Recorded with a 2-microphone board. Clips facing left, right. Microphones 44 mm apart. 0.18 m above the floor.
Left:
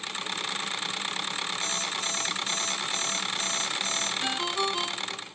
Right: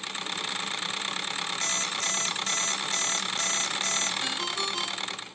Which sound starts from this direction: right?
An alarm clock, at 1.6 s.